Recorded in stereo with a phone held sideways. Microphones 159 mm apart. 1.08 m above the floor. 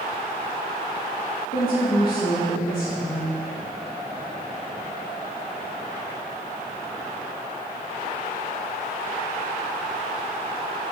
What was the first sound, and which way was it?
A woman speaking, 70° left (ahead or behind).